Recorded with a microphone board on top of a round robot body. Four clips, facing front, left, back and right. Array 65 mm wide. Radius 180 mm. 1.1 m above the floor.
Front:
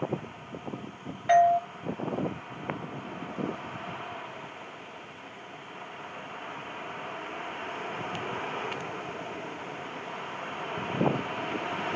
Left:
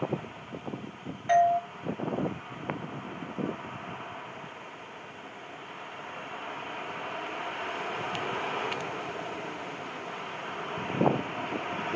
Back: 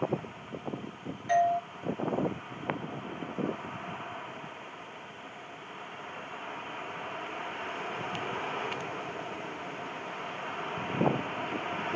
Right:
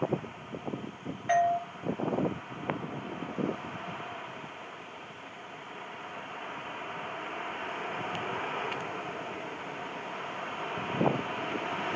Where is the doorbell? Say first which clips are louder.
Left 3 dB, front 5 dB; 5° right, 1.1 m.